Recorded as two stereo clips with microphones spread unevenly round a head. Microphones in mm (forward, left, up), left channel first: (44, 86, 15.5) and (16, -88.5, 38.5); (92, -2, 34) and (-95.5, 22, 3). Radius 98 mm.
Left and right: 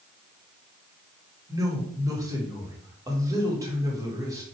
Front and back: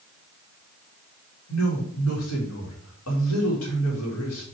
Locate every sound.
1.5 s a woman speaking: 25° right, 3 m